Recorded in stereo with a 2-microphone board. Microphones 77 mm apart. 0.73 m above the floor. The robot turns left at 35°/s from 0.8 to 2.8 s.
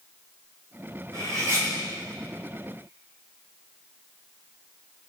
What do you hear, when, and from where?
1.1 s cutlery clinking: 50° right (ahead or behind), 5 m; by 1.7 s 35° right (ahead or behind), 5 m